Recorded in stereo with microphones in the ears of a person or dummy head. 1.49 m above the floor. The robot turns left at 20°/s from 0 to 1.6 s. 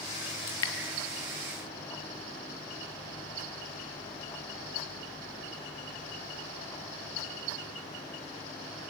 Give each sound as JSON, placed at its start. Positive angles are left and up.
{"t": 0.5, "sound": "dripping", "side_deg": 20, "distance_m": 1.4}